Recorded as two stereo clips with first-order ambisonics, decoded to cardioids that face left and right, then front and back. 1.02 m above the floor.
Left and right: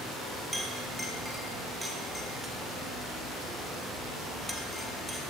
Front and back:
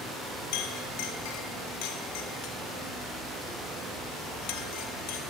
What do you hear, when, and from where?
0.5 s a clink: straight ahead, 1.8 m